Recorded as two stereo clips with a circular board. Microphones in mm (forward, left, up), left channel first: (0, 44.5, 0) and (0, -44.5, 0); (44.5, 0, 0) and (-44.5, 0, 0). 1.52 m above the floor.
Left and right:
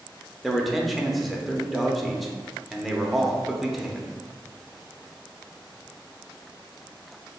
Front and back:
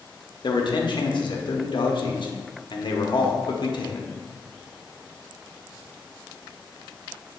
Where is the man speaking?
Straight ahead, 0.6 m.